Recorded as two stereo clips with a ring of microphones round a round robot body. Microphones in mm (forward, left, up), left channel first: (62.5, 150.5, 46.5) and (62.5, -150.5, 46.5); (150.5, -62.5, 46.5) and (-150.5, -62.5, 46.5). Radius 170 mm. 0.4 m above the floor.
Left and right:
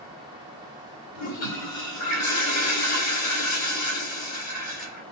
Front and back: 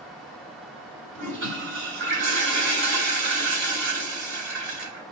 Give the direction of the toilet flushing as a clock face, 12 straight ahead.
8 o'clock.